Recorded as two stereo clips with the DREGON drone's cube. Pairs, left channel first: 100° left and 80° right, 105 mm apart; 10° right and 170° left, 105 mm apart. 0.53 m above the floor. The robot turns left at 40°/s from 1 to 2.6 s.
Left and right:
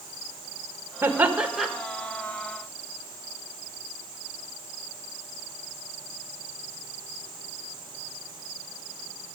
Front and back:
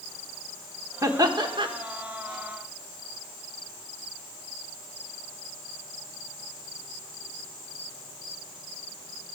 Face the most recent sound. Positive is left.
turn(degrees=155)